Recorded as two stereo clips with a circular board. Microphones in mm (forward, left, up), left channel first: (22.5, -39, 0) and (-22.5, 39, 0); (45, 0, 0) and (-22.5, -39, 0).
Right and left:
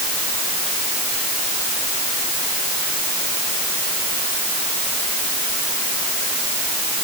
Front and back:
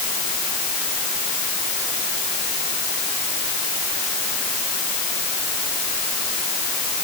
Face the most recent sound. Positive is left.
No sound to turn to.